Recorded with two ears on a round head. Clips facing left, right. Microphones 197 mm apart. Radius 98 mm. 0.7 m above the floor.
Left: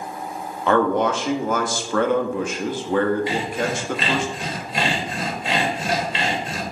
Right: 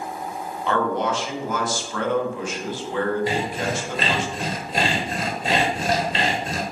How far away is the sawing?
About 1.2 m.